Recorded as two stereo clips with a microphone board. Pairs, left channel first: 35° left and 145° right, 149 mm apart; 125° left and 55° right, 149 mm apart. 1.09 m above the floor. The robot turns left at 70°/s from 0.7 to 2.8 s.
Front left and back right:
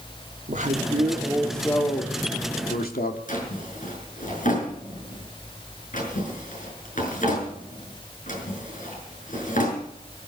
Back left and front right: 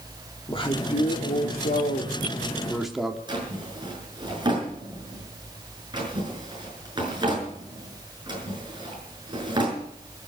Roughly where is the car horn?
No car horn in this recording.